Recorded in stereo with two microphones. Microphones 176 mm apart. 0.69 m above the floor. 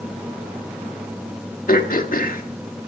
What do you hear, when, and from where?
1.7 s throat clearing: 55° left (ahead or behind), 1.2 m